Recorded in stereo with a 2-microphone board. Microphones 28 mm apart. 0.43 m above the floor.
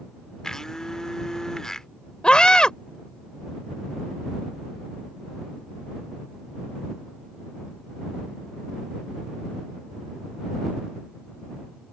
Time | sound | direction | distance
0.4 | a blender | 20° left (ahead or behind) | ?
2.2 | a scream | 35° left (ahead or behind) | ?